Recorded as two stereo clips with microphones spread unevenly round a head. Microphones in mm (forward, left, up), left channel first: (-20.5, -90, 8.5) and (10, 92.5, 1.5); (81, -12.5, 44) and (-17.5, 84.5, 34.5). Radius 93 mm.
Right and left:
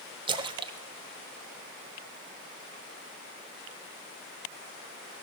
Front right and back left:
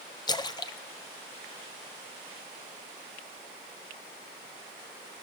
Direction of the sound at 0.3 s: 15° left.